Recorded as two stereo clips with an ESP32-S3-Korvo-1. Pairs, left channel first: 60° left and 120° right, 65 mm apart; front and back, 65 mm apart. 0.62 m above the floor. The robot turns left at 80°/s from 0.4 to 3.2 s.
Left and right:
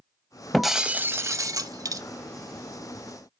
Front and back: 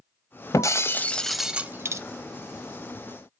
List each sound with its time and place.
0.5 s breaking glass: 25° right, 0.6 m; by 2.0 s 145° right, 0.6 m